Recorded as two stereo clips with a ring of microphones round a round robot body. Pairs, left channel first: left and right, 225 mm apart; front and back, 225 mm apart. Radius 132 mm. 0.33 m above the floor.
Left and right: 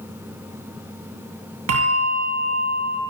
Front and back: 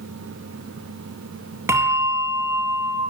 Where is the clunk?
I don't hear a clunk.